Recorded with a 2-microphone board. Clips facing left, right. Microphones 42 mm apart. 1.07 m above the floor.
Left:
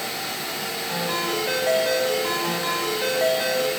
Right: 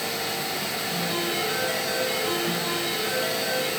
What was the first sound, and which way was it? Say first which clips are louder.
A ringtone: left 3 dB; 80° left.